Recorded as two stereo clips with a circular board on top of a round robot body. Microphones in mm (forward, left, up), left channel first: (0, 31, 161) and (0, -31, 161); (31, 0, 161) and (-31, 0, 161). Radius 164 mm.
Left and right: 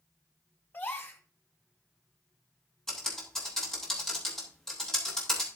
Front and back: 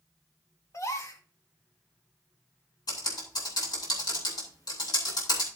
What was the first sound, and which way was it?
A gasp, 35° left.